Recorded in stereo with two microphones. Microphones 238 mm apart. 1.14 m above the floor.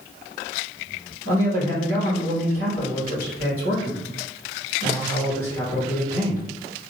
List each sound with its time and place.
1.2 s a man speaking: 60° right (ahead or behind), 2.0 m